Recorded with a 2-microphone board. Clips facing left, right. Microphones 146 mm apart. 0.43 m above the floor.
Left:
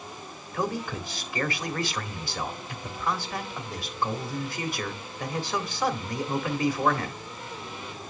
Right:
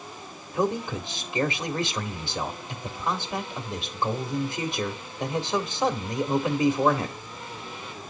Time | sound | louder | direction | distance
0.5 | a man speaking | right 4 dB | 20° right (ahead or behind) | 1.4 m